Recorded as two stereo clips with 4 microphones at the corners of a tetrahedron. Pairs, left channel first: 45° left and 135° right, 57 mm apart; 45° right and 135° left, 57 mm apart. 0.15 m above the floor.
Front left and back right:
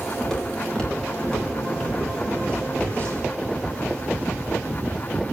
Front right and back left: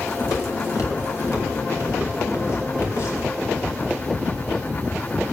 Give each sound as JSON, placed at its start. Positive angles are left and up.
{"t": 0.2, "sound": "footsteps", "azimuth_deg": -35, "distance_m": 7.0}